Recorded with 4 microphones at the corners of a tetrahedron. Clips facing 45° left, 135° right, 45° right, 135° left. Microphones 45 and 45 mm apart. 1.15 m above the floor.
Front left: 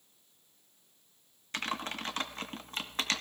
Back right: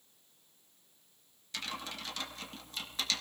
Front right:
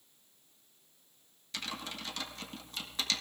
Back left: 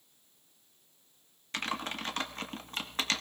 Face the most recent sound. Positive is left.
turn(degrees=90)